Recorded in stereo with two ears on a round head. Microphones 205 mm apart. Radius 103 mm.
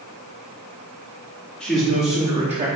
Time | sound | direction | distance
1.6 | a man speaking | centre (ahead or behind) | 2.5 m